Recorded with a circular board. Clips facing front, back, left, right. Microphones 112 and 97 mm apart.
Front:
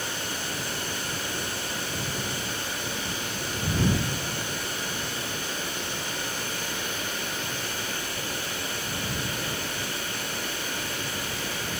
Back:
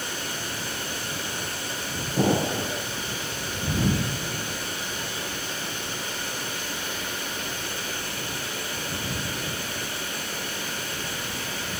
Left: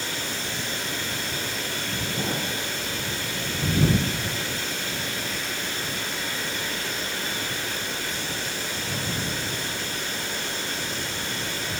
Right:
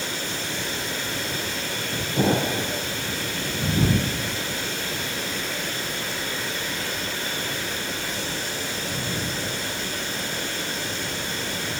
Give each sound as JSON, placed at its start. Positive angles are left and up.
{"t": 2.2, "sound": "an explosion", "azimuth_deg": -150}